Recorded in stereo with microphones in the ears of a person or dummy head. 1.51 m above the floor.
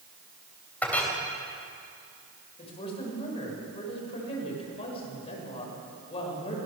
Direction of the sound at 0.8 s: 10° left (ahead or behind).